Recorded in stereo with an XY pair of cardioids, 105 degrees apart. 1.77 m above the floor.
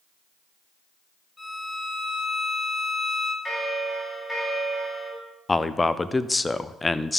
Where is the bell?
20° left, 3.5 m.